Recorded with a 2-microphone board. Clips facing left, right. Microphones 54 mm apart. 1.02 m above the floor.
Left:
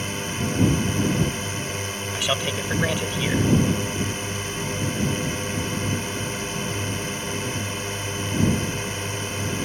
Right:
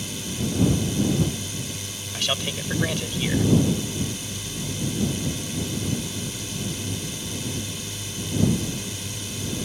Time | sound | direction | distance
0.0 | a drone | 45° left (ahead or behind) | ?
2.1 | a man speaking | 15° left (ahead or behind) | ?